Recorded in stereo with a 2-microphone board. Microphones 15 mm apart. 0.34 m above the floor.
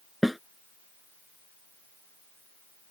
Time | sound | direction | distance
0.2 | a snare drum | 10° right (ahead or behind) | ?